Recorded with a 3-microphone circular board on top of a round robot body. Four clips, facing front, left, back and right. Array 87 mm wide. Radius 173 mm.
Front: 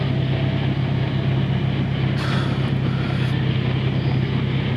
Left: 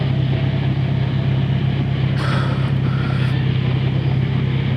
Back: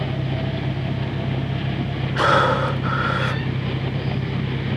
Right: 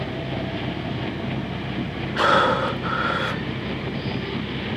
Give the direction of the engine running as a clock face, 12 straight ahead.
10 o'clock.